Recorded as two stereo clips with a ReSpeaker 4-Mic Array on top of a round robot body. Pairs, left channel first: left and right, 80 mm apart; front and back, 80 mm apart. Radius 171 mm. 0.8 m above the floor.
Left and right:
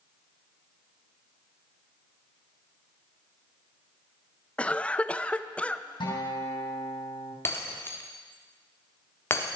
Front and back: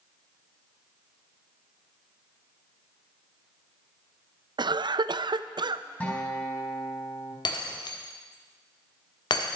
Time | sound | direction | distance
4.6 | a cough | 165° left | 0.7 m
6.0 | a guitar | 70° left | 4 m
7.5 | breaking glass | 30° left | 1.3 m